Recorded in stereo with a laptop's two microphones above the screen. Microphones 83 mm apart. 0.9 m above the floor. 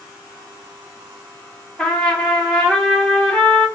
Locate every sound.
1.8 s a trumpet: 10° left (ahead or behind), 1.9 m